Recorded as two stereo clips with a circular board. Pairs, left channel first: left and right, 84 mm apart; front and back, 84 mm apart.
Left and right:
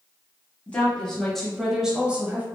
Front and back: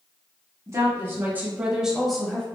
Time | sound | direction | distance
0.7 | a woman speaking | 155° left | 1.2 m